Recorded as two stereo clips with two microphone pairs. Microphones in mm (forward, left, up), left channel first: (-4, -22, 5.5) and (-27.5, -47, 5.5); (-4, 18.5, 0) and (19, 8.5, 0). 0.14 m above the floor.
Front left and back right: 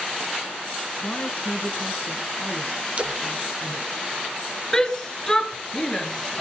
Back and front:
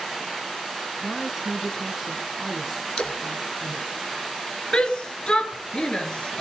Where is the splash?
Straight behind, 1.8 m.